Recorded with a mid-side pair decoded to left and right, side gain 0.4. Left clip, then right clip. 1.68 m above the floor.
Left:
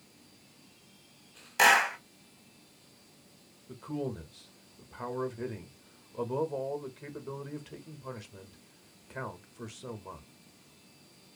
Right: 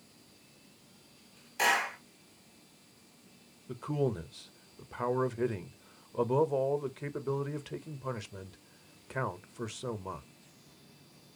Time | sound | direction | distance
1.6 | a clap | 65° left | 0.8 m
3.7 | a man speaking | 50° right | 0.6 m